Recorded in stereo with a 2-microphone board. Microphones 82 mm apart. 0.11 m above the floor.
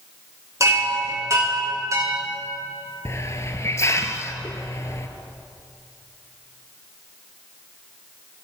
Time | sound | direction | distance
0.6 | a chime | 40° right (ahead or behind) | 5 m
3.0 | a hiss | 35° left (ahead or behind) | 0.9 m